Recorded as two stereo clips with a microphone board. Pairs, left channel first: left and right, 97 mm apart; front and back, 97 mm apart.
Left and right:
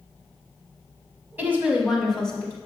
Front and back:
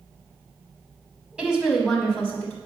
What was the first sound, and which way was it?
A woman speaking, 120° right.